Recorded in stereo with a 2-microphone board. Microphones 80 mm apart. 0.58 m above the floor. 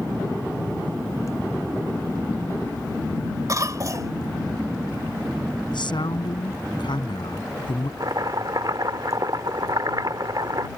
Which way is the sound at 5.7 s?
75° left (ahead or behind).